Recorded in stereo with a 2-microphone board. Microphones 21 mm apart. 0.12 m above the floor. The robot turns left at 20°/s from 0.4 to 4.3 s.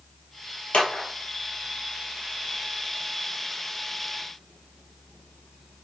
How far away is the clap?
About 2 m.